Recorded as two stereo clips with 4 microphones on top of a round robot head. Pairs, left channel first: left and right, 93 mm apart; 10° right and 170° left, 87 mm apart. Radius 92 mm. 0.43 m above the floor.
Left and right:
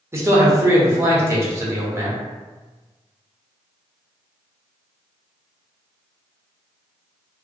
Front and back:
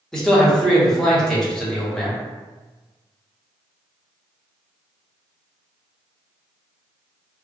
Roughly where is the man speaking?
Right.